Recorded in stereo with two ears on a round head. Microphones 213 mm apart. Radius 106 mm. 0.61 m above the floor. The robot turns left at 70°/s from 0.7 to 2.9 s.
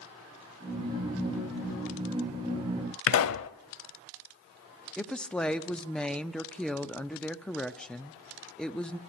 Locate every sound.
3.1 s a pop: 60° left (ahead or behind), 0.7 m
5.0 s a woman speaking: 5° left (ahead or behind), 0.6 m